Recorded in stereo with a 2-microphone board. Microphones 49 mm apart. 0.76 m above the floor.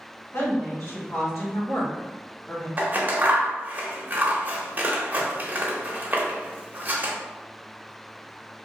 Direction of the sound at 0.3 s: 60° left (ahead or behind).